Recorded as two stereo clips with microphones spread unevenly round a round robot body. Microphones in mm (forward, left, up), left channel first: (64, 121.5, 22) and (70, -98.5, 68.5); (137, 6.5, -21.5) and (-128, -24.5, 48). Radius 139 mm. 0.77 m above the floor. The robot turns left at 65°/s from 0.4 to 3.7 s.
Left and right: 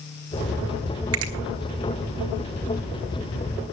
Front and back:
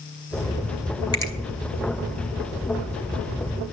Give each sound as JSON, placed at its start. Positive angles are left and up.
{"t": 1.1, "sound": "a finger snap", "azimuth_deg": -65, "distance_m": 2.0}